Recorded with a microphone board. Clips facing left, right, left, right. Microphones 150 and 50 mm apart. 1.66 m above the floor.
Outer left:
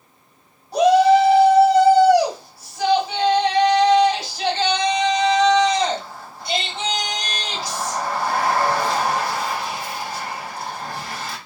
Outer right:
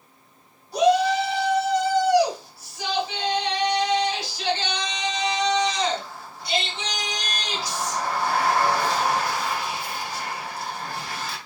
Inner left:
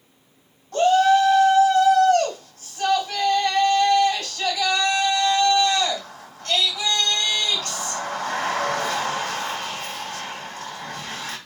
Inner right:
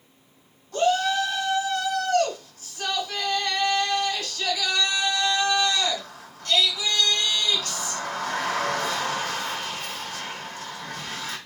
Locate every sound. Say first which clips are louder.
0.7 s a shout: outer left 6 dB, inner left 6 dB; 55° left (ahead or behind), 3 m